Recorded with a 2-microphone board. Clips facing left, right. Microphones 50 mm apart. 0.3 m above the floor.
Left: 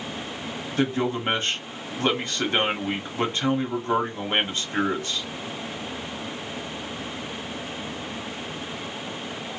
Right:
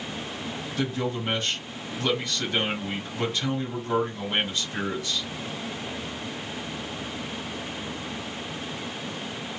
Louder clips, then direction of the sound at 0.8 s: Left 5 dB; 35° left (ahead or behind).